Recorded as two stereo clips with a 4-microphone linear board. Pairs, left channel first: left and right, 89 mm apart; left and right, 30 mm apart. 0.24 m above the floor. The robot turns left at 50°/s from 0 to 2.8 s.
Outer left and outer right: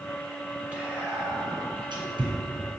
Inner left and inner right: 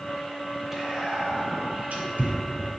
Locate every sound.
0.7 s whispering: 20° right (ahead or behind), 2 m; by 2.3 s 55° right (ahead or behind), 2 m